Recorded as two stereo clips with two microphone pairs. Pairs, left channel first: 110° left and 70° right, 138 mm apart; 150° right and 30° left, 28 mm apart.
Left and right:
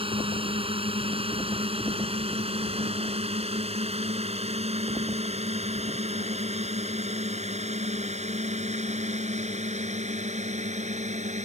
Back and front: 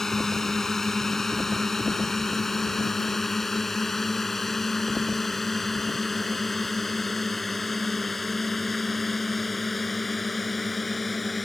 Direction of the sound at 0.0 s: 85° right.